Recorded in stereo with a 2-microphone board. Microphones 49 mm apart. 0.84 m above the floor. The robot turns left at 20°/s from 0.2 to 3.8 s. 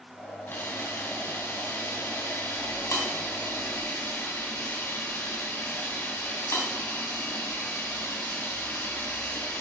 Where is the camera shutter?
135° left, 4 m; by 9.6 s 70° left, 4 m.